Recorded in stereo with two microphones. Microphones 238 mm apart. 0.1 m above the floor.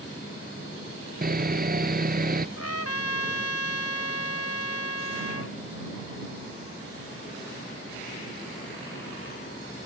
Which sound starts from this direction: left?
A trumpet, at 2.6 s.